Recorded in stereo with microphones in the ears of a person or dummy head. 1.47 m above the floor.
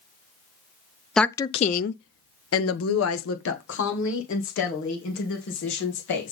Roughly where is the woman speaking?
Centre.